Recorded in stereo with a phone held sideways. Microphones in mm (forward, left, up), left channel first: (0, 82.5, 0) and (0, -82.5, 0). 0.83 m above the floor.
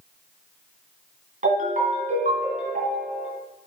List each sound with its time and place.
1.4 s a ringtone: 60° right (ahead or behind), 3 m